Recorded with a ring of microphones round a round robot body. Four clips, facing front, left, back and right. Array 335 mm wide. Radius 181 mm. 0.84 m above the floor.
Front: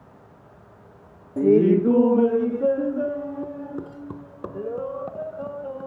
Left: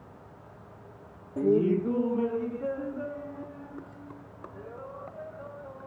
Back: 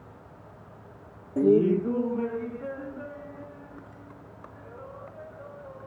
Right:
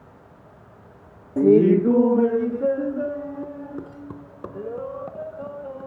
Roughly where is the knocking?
I don't hear knocking.